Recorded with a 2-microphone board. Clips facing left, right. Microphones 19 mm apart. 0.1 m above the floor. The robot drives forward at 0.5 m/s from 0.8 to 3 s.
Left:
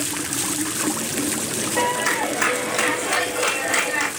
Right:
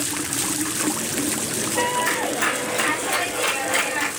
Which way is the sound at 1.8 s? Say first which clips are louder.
Left 1 dB; 30° left (ahead or behind).